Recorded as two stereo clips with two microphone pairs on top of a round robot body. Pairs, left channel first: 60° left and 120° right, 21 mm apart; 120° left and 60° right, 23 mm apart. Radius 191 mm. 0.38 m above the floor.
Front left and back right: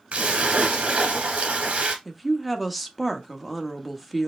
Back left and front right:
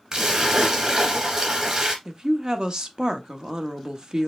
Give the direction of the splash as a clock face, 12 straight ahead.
4 o'clock.